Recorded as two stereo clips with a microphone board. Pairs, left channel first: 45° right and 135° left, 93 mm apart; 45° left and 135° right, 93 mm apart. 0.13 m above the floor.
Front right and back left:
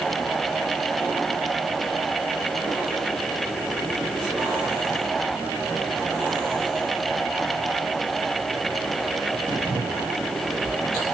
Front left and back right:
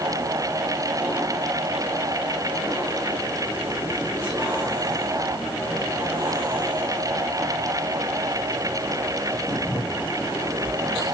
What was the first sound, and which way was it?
Only background noise.